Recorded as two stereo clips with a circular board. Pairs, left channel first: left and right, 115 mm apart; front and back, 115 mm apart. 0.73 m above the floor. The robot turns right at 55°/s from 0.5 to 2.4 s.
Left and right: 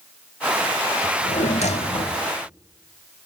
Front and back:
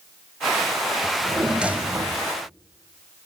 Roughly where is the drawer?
Ahead left.